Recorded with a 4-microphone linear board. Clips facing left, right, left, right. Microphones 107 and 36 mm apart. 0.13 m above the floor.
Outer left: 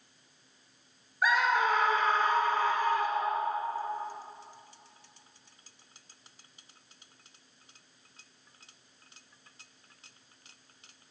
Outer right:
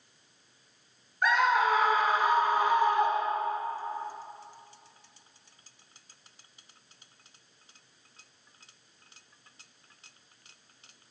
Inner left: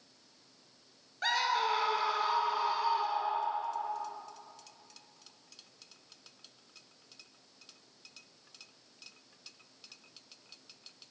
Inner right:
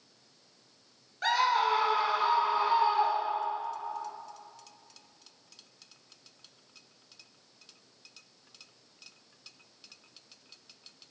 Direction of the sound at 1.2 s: 5° left (ahead or behind).